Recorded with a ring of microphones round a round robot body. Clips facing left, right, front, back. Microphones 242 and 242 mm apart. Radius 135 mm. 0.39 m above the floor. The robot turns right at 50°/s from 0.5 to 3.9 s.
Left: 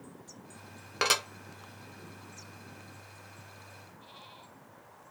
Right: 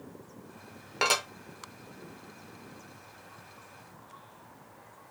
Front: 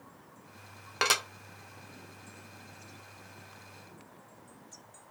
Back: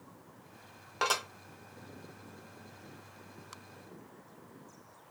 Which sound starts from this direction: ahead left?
Dishes clattering, at 1.0 s.